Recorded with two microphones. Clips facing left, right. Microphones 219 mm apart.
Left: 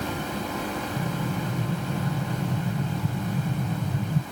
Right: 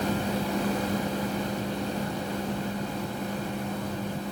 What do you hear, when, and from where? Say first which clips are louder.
1.0 s an explosion: even; 60° left (ahead or behind)